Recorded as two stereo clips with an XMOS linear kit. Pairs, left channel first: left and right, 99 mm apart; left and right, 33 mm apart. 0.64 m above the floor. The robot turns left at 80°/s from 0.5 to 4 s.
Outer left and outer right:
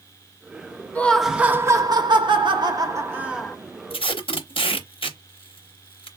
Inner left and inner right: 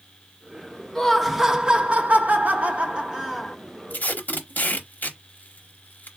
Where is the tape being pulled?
65° left (ahead or behind), 0.7 m.